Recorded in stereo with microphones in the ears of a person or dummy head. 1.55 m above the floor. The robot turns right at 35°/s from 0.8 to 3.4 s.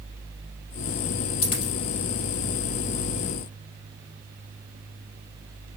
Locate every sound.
1.4 s a dropped coin: 35° left (ahead or behind), 2.5 m; by 1.7 s 40° left (ahead or behind), 2.5 m